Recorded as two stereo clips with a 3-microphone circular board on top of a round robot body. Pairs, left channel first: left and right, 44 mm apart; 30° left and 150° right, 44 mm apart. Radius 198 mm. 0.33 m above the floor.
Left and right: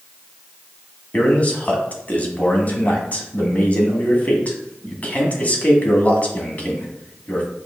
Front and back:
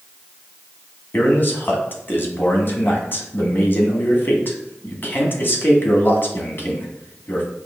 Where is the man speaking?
50° left, 1.4 m.